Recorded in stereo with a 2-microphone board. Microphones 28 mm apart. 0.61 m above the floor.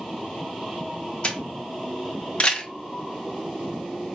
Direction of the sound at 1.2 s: 45° left (ahead or behind).